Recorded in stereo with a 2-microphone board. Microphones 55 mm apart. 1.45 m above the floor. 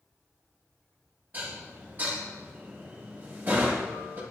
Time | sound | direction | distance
1.3 | dishes clattering | 35° right (ahead or behind) | 1.2 m